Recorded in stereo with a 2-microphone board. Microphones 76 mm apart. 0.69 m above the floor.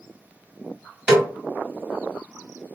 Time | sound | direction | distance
1.1 | a snare drum | 10° right (ahead or behind) | 2 m